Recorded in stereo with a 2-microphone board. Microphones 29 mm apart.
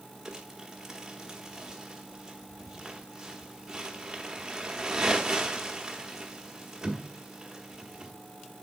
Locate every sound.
0.2 s crumpling: 20° right (ahead or behind), 1.0 m